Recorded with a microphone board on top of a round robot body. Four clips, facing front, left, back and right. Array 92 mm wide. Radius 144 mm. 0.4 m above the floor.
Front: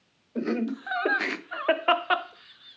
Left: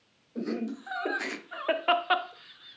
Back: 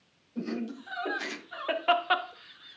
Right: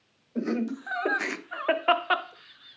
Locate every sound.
0.3 s laughter: 20° right, 1.9 m; by 2.8 s straight behind, 1.0 m